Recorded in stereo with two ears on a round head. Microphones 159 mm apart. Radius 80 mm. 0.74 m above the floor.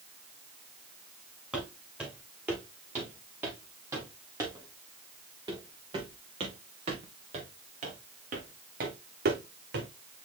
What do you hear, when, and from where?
1.5 s footsteps: 5° right (ahead or behind), 5 m; by 9.9 s 65° right (ahead or behind), 3 m